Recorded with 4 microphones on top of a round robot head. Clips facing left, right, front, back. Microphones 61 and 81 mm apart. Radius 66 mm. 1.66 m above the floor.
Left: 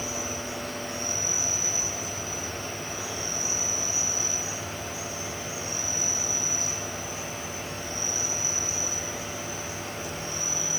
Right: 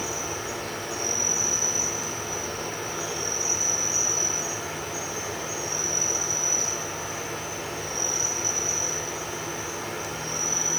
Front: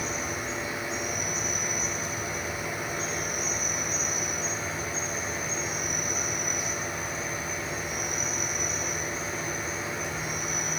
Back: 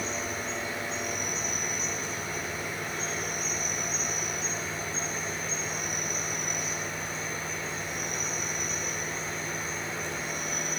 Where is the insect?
85° right, 9 m.